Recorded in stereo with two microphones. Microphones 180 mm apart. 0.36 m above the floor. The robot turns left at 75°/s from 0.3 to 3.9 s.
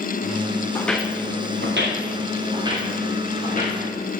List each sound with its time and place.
0.8 s footsteps: 20° left (ahead or behind), 1.3 m; by 3.8 s 60° left (ahead or behind), 5.5 m